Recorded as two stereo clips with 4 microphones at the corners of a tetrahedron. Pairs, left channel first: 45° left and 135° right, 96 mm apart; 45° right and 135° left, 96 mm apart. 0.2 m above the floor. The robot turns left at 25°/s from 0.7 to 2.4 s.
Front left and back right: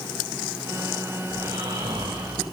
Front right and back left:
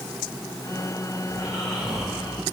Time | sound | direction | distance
1.3 | snoring | 120° right | 8 m